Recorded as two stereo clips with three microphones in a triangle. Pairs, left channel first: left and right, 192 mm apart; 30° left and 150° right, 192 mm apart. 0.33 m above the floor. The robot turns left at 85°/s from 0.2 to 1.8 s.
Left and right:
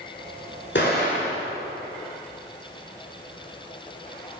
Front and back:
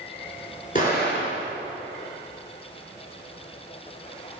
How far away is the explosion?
About 2 m.